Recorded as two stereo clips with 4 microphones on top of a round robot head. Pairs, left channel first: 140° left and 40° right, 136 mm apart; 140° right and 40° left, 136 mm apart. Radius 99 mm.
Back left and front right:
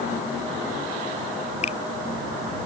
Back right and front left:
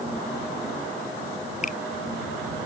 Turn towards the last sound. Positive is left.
turn(degrees=-175)